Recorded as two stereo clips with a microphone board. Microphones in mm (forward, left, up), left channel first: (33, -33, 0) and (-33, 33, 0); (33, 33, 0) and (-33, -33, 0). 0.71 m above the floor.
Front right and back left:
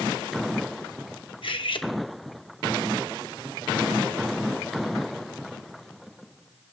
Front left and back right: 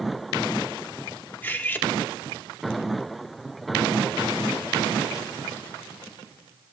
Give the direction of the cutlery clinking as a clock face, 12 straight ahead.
1 o'clock.